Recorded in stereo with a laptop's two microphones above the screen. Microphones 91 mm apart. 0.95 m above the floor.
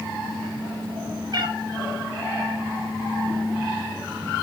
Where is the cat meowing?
50° right (ahead or behind), 0.5 m.